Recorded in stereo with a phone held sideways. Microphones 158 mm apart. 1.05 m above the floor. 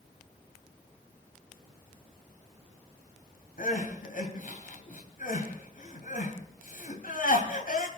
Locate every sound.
3.6 s crying: 65° left (ahead or behind), 3 m